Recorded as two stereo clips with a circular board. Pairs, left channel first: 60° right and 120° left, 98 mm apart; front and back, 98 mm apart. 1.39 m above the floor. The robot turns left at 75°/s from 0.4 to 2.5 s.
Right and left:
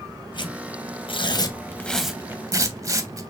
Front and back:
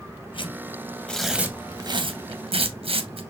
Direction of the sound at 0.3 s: 25° right.